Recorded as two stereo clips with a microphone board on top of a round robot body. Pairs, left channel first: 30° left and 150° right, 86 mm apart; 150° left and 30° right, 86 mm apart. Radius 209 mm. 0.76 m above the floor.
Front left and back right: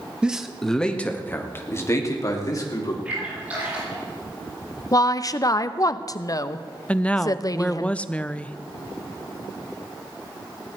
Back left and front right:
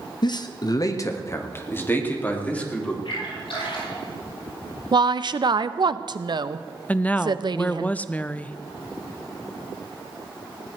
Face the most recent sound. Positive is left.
turn(degrees=90)